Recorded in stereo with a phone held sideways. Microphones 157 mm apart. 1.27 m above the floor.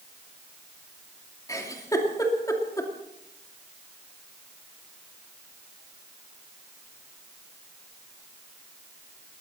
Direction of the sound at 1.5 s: 20° left (ahead or behind).